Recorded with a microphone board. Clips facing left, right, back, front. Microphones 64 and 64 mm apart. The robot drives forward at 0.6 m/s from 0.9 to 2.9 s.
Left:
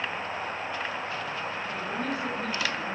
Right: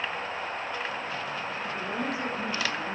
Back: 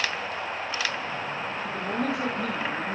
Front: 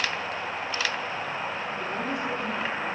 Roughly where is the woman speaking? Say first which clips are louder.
Right 1 dB, back 2 dB; behind.